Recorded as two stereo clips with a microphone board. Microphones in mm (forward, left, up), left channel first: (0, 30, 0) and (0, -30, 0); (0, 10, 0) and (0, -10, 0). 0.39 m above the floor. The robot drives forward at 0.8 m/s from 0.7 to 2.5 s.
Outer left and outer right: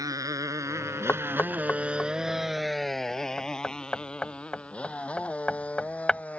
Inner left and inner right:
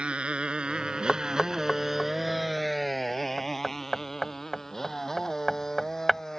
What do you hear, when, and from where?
0.0 s a motorcycle: 85° right; by 6.4 s 25° left (ahead or behind)
1.1 s knocking: 35° left (ahead or behind); by 6.2 s 15° left (ahead or behind)